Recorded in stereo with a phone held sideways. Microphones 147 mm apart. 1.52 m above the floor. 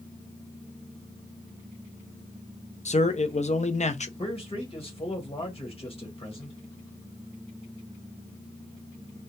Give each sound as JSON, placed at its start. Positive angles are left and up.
{"t": 2.9, "sound": "a man speaking", "side_deg": 50, "distance_m": 0.6}
{"t": 4.2, "sound": "a man speaking", "side_deg": 40, "distance_m": 1.2}